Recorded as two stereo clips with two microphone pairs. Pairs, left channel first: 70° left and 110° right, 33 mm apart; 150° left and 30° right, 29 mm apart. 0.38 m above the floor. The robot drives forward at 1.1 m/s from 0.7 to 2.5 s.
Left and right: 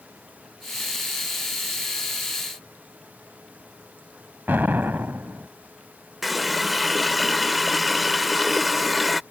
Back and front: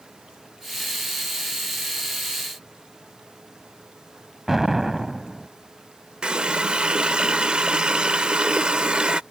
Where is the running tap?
25° right.